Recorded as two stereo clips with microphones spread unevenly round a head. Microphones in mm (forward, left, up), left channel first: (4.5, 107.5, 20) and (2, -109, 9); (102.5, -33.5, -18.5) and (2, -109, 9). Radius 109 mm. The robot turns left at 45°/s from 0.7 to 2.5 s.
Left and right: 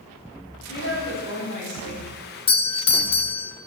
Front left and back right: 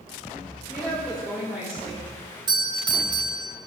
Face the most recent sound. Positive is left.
turn(degrees=150)